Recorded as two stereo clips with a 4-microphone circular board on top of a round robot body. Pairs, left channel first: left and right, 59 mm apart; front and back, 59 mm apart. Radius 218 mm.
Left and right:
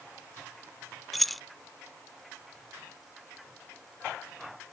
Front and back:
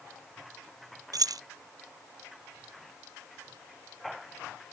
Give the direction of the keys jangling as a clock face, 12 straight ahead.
6 o'clock.